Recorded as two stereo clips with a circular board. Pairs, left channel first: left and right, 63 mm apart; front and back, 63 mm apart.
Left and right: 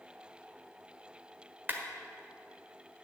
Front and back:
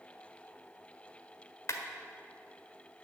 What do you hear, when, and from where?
1.7 s a clap: 35° right, 1.4 m